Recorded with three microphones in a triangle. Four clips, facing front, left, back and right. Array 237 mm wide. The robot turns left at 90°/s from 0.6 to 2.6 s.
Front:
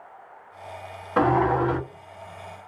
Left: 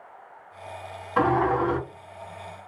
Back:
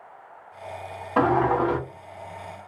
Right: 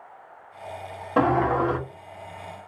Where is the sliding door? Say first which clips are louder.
Right 1 dB, even; 85° right, 1.8 m; by 1.8 s 140° right, 1.8 m.